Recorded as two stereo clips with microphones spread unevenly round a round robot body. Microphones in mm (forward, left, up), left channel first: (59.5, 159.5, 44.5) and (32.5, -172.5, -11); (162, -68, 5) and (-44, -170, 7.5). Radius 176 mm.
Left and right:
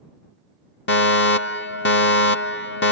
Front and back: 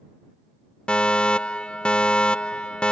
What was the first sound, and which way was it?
A fire alarm, 105° left.